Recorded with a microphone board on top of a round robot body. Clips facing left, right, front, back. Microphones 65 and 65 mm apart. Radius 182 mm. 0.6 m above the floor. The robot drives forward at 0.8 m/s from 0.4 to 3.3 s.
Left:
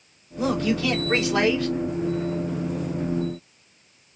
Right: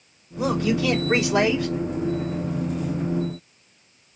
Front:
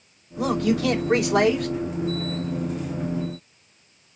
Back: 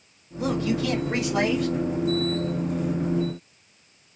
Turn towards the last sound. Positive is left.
turn(degrees=-60)